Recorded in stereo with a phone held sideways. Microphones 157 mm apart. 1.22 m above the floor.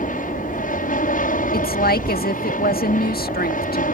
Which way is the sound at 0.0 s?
60° left (ahead or behind).